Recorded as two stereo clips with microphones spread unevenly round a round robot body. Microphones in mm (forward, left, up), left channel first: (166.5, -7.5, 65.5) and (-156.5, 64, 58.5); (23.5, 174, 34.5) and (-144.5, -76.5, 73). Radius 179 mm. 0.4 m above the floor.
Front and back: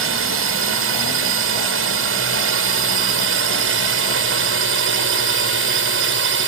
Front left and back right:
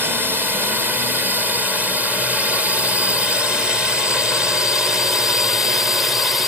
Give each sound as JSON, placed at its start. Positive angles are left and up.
{"t": 0.0, "sound": "a drone", "azimuth_deg": 150}